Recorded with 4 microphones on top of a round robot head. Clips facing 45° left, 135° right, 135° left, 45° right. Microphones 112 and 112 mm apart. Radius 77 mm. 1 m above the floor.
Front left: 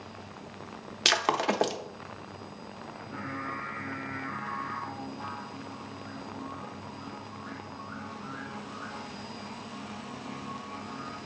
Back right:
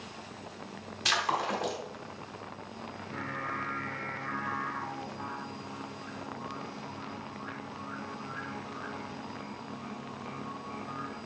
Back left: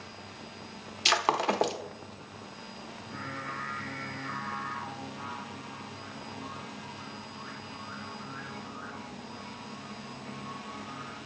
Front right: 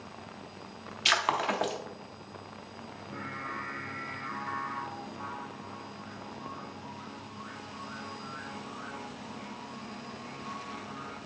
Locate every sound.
1.1 s breaking glass: 75° left, 0.6 m
2.9 s singing: 110° right, 2.5 m